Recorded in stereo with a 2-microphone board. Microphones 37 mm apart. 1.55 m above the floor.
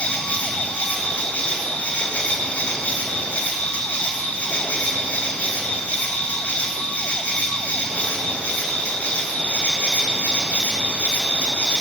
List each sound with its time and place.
0.0 s an insect: 60° left (ahead or behind), 2.5 m